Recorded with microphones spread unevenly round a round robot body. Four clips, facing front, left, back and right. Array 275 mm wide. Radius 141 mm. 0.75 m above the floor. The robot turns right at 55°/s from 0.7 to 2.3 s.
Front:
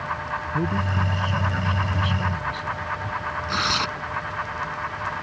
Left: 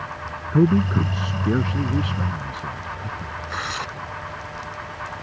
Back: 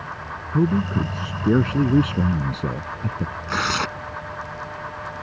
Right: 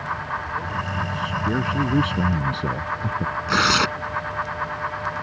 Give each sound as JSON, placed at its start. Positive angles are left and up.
{"t": 0.5, "sound": "a man speaking", "azimuth_deg": 125}
{"t": 3.5, "sound": "tearing paper", "azimuth_deg": -95}